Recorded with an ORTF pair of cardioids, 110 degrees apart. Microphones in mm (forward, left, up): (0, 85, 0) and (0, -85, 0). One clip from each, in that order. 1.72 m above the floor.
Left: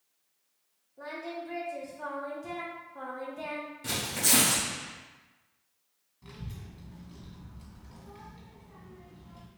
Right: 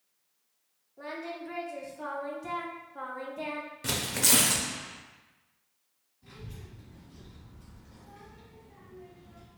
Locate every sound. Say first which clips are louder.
1.0 s singing: even; 15° right, 0.7 m
3.8 s tearing paper: right 1 dB; 30° right, 0.8 m
6.2 s a child speaking: left 1 dB; 65° left, 1.7 m